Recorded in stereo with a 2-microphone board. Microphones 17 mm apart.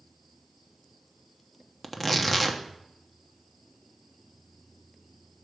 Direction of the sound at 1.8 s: 5° right (ahead or behind).